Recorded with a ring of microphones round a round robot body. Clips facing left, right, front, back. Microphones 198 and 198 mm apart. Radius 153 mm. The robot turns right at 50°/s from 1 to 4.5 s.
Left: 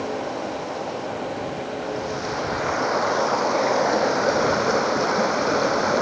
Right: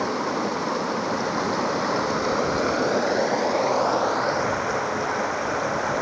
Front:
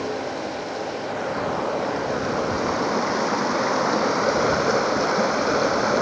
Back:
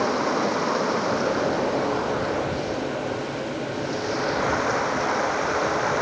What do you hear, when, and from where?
0.0 s running water: 130° right; by 6.0 s 45° left